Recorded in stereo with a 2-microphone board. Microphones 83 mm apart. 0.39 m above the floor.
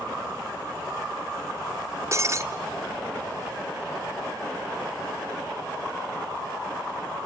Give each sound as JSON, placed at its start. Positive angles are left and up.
{"t": 2.1, "sound": "breaking glass", "side_deg": -35, "distance_m": 1.3}